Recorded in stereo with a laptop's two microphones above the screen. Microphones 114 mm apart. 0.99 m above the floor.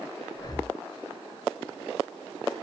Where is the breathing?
35° left (ahead or behind), 0.6 m.